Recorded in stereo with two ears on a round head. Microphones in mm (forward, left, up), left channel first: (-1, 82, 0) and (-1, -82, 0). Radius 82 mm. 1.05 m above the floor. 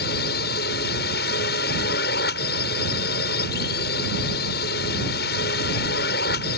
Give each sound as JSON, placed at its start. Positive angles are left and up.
{"t": 0.0, "sound": "a drone", "side_deg": 65}